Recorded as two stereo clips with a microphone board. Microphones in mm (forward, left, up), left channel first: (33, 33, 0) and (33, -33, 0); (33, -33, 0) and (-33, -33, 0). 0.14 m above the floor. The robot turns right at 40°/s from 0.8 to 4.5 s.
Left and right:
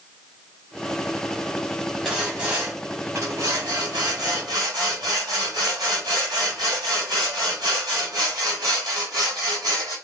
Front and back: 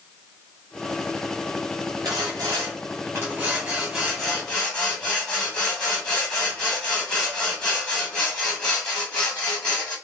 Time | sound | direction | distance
2.0 | sawing | 170° right | 2.5 m